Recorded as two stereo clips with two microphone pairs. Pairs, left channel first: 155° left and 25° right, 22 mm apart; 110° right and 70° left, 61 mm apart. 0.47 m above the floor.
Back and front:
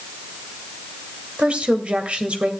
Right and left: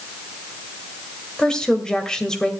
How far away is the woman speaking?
About 2 m.